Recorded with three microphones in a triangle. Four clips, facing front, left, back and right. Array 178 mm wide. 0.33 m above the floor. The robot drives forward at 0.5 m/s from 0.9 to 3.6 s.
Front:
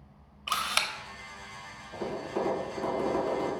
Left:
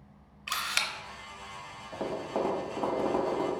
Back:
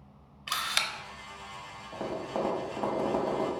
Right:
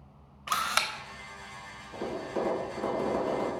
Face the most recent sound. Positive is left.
turn(degrees=140)